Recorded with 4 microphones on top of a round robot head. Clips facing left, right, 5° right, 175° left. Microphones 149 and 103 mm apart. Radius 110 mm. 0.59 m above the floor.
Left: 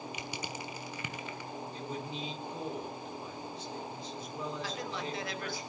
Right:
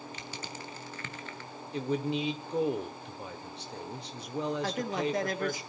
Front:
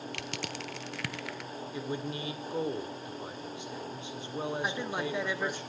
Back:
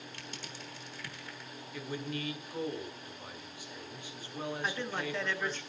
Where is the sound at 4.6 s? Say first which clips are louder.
Right 7 dB, front 3 dB; 75° right, 1.4 m.